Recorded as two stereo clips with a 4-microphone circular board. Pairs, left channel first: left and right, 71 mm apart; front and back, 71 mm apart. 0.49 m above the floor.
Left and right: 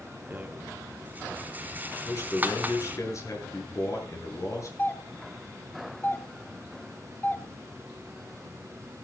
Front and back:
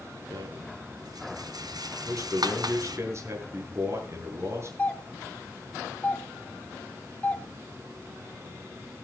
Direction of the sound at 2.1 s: 130° left.